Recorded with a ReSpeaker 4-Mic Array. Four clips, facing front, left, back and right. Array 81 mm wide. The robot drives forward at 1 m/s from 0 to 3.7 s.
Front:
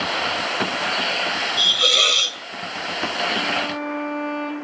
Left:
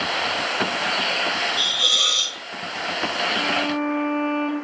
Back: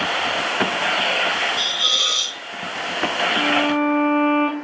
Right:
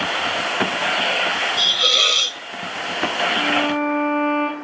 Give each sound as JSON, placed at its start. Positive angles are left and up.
{"t": 1.6, "sound": "a hiss", "azimuth_deg": -25, "distance_m": 1.6}
{"t": 3.4, "sound": "a violin", "azimuth_deg": -175, "distance_m": 1.4}